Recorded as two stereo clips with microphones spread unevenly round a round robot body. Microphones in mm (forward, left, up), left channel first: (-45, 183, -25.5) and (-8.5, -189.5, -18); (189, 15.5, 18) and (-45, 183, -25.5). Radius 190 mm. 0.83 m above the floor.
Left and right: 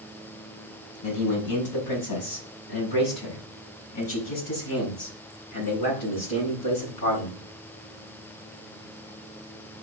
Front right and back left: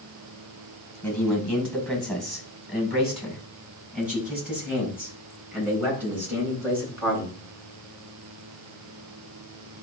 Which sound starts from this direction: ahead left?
A man speaking, at 1.0 s.